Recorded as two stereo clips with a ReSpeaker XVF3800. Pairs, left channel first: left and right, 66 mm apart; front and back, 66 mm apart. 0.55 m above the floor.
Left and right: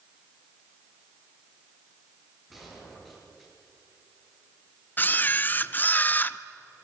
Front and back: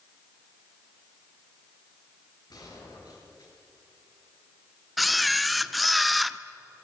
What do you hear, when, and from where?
2.5 s a gunshot: straight ahead, 8.5 m
5.0 s a camera shutter: 90° left, 0.7 m